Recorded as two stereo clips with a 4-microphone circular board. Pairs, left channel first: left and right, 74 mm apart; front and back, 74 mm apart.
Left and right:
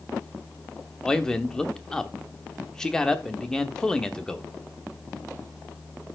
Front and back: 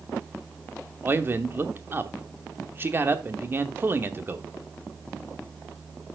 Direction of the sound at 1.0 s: 165° left.